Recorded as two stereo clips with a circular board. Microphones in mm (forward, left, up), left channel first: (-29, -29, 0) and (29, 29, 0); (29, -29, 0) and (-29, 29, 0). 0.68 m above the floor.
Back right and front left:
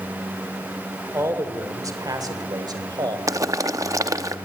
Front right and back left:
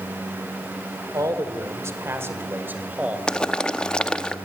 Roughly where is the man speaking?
Left.